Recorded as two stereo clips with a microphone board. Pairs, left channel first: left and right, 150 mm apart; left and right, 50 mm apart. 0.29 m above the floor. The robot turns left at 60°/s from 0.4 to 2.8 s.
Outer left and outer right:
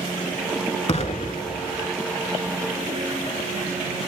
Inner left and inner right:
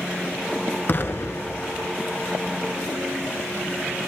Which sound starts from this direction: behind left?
An explosion, at 0.9 s.